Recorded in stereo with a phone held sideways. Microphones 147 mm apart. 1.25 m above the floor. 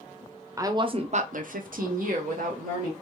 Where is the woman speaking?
20° right (ahead or behind), 0.6 m; by 2.9 s 60° right (ahead or behind), 1.2 m.